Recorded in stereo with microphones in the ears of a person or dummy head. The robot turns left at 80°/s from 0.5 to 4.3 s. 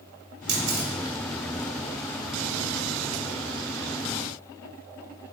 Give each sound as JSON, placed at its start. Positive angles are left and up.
{"t": 0.5, "sound": "a camera shutter", "side_deg": -75, "distance_m": 0.6}